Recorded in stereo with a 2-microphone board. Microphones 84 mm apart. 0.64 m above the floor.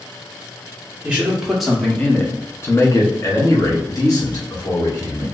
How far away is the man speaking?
About 0.8 m.